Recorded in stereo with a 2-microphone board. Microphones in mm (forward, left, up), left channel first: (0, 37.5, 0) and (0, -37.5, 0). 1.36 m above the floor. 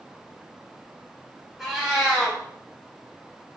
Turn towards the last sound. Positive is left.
turn(degrees=-5)  # may be behind; listen again after turning